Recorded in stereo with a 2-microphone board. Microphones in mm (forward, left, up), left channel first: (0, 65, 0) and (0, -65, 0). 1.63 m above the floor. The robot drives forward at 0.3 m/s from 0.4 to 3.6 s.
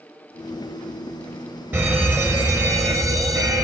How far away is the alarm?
About 1.3 m.